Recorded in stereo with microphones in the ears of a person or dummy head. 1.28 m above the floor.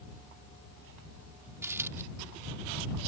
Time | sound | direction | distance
1.6 | a dropped coin | 10° right (ahead or behind) | ?